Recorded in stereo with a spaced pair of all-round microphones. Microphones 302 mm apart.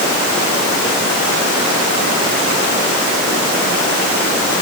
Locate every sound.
Only background noise.